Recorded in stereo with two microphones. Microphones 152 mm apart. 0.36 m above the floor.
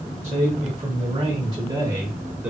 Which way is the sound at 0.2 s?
40° right (ahead or behind).